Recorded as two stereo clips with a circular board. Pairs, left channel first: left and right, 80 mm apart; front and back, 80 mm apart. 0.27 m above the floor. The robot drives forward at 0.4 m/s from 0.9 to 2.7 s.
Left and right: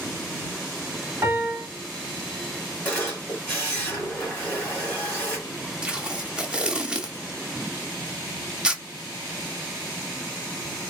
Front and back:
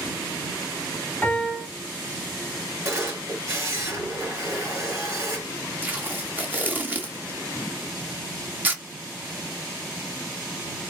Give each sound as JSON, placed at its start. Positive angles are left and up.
{"t": 1.2, "sound": "a piano", "azimuth_deg": -60, "distance_m": 1.4}
{"t": 2.9, "sound": "a camera shutter", "azimuth_deg": 150, "distance_m": 2.0}
{"t": 5.8, "sound": "tape being pulled", "azimuth_deg": -155, "distance_m": 0.6}